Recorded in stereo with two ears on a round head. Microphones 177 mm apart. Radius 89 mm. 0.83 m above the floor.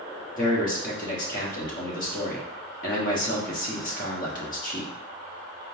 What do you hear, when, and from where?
0.4 s a man speaking: 40° left (ahead or behind), 1.2 m